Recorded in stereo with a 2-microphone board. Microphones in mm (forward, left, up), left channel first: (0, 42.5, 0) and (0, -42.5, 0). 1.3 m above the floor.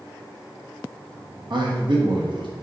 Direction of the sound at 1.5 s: 65° right (ahead or behind).